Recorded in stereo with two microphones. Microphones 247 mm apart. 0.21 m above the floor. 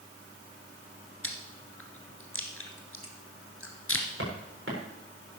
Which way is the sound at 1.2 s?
60° left (ahead or behind).